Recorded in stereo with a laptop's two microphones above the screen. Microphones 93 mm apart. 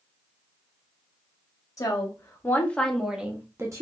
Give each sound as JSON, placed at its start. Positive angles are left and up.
{"t": 1.8, "sound": "a woman speaking", "side_deg": 35, "distance_m": 1.0}